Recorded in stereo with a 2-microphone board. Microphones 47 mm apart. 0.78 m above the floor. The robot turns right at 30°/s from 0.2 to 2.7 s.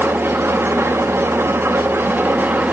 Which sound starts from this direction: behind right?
An engine running, at 0.0 s.